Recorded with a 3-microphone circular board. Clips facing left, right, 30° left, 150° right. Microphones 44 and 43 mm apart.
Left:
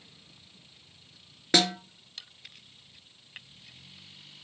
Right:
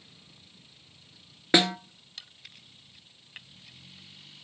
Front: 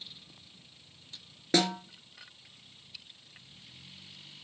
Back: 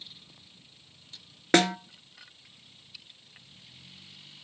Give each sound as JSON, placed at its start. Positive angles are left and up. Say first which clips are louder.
{"t": 1.5, "sound": "a snare drum", "louder": "right 2 dB, back 5 dB", "azimuth_deg": -155, "distance_m": 0.7}